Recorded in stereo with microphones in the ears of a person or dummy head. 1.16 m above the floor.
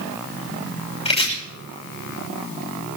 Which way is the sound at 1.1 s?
25° left (ahead or behind).